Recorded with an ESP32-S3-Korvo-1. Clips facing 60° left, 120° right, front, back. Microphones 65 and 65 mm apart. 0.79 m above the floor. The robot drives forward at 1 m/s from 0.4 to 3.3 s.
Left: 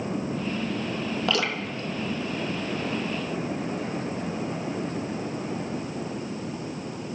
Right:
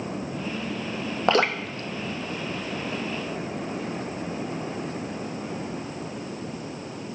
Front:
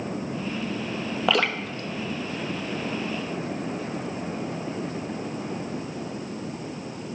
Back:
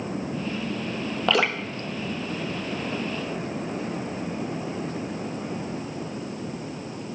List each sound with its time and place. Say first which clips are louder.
1.3 s dripping: right 8 dB, back 1 dB; 80° right, 0.5 m; by 3.4 s 170° right, 2 m